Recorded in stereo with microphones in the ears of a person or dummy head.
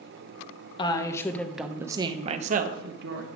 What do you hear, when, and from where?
0.8 s a woman speaking: 25° left (ahead or behind), 1.0 m; by 3.3 s 65° right (ahead or behind), 1.1 m